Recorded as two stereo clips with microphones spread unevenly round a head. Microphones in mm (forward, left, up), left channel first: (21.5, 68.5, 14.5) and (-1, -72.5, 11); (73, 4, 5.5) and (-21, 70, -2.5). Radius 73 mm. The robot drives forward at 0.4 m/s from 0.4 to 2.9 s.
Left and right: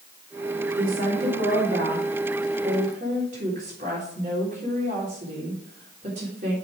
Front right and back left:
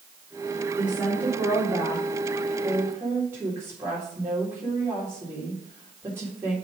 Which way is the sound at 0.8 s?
130° right.